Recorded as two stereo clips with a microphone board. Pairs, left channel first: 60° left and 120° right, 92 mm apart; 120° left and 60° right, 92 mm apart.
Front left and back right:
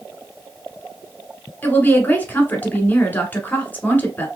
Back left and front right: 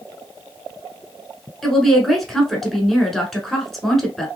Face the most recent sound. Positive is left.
turn(degrees=35)